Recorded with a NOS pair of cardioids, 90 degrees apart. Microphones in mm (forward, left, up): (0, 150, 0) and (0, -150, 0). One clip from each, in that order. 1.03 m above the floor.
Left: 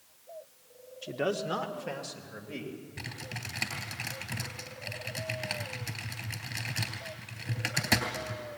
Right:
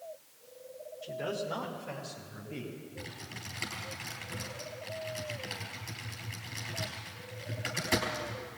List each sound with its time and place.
1.0 s a man speaking: 70° left, 2.0 m; by 2.8 s 75° left, 4.5 m
3.0 s typing on a keyboard: 55° left, 3.5 m